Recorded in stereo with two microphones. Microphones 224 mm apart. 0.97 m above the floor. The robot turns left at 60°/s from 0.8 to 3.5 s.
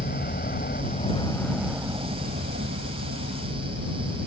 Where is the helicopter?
45° left (ahead or behind); by 4.3 s 60° right (ahead or behind).